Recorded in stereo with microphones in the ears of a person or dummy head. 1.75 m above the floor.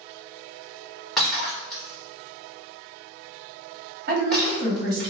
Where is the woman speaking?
55° right (ahead or behind), 1.3 m.